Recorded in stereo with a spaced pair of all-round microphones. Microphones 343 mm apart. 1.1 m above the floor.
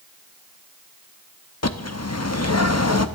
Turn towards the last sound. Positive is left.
turn(degrees=45)  # may be behind; listen again after turning